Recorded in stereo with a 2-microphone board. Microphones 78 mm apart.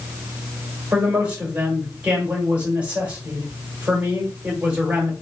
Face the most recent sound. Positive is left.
turn(degrees=-15)  # may be behind; listen again after turning